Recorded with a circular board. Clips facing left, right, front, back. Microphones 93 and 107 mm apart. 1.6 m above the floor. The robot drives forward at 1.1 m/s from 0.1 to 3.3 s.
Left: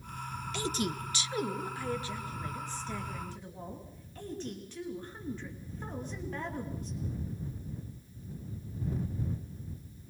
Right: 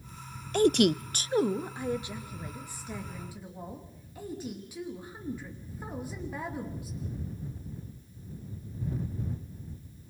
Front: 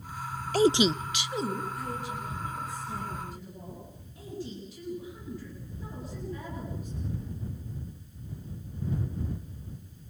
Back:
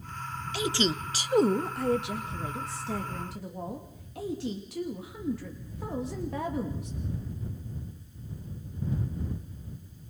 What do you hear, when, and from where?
0.5 s a woman speaking: 45° right, 0.6 m; by 7.0 s 170° right, 2.5 m